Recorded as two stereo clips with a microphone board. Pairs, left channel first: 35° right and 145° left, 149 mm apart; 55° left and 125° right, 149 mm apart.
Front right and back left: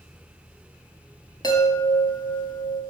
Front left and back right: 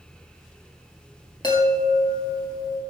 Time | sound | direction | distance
1.4 | a chime | 15° left | 1.4 m